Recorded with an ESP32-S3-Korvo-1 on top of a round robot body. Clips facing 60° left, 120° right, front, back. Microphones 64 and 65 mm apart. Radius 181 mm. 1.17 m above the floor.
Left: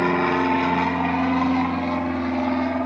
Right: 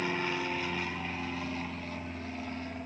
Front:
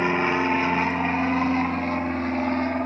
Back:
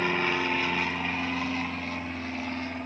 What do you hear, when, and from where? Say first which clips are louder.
0.0 s an aircraft: left 13 dB, front 5 dB; 65° left; by 2.9 s 45° left